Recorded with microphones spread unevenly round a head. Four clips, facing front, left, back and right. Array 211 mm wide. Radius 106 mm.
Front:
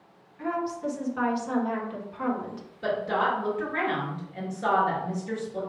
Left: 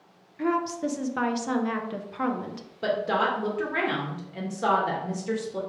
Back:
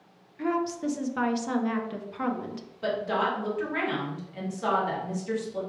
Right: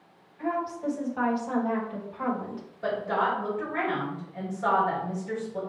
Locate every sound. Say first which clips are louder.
0.4 s a woman speaking: left 3 dB, back 2 dB; 125° left, 1.0 m
2.8 s a woman speaking: left 2 dB, front 1 dB; 90° left, 1.8 m